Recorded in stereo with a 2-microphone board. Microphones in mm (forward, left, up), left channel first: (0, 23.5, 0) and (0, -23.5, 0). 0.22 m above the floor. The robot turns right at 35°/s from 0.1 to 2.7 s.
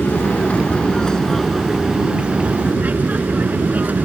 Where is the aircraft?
130° left; by 4.0 s 140° right.